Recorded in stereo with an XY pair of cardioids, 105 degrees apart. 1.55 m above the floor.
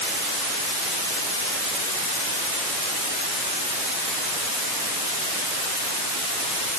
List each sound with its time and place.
Only background noise.